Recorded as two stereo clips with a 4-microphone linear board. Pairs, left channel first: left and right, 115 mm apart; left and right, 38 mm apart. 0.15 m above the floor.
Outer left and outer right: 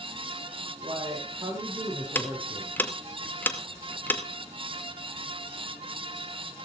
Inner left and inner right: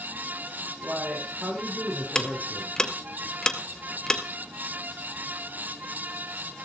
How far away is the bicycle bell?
No bicycle bell in this recording.